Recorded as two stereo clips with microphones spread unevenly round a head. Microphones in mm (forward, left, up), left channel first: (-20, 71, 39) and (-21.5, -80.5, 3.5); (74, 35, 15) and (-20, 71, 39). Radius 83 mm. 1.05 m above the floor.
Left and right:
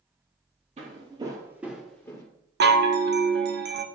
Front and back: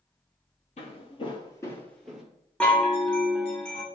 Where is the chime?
105° right, 0.7 m.